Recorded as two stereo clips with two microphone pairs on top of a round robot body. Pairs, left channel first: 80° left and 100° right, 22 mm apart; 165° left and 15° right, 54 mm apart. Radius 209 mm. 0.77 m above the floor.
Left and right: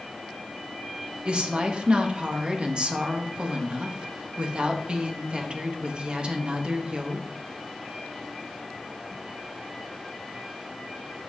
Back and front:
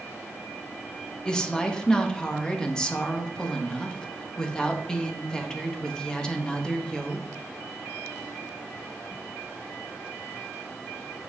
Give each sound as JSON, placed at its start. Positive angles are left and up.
{"t": 1.2, "sound": "a woman speaking", "azimuth_deg": -125, "distance_m": 1.2}